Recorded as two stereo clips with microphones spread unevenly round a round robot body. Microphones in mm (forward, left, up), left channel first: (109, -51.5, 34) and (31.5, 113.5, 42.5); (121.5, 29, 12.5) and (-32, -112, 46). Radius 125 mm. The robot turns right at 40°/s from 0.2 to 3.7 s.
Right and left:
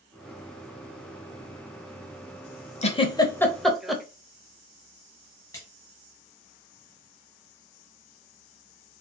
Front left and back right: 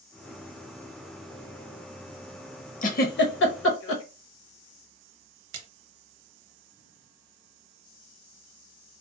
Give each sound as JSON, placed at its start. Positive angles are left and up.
{"t": 2.8, "sound": "a giggle", "azimuth_deg": -10, "distance_m": 0.9}
{"t": 5.5, "sound": "a splash", "azimuth_deg": -145, "distance_m": 0.7}